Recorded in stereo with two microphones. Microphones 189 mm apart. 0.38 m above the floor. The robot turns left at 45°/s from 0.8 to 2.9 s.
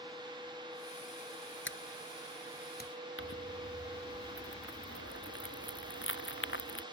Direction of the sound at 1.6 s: 75° left (ahead or behind).